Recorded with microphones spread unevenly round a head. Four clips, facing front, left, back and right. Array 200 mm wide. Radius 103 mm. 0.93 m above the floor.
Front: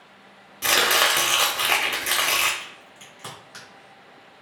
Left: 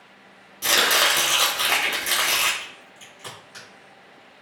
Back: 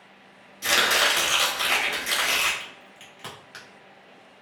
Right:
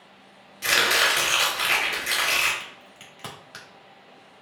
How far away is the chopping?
About 0.8 m.